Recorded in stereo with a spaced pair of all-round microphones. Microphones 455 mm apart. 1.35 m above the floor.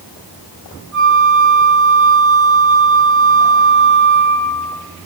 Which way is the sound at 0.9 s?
Centre (ahead or behind).